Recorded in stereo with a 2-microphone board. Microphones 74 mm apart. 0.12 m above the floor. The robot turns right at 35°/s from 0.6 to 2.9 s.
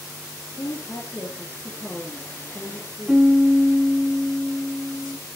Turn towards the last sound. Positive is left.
turn(degrees=-10)  # may be behind; listen again after turning